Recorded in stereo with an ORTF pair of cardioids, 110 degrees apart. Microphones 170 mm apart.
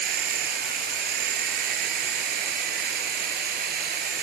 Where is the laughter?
I don't hear laughter.